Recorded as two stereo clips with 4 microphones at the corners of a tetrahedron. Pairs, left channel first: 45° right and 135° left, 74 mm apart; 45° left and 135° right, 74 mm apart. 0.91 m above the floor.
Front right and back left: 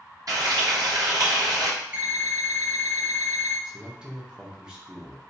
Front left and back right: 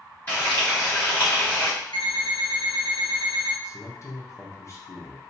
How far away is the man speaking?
About 0.7 m.